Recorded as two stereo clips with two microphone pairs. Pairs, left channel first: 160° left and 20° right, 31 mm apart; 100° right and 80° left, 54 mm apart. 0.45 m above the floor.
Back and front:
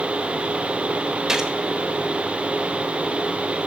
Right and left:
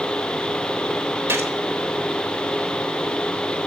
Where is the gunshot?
55° left, 0.9 m.